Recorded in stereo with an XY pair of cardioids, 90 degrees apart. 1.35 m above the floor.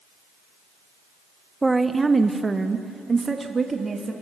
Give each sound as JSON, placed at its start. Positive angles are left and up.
{"t": 1.6, "sound": "a woman speaking", "azimuth_deg": -15, "distance_m": 1.1}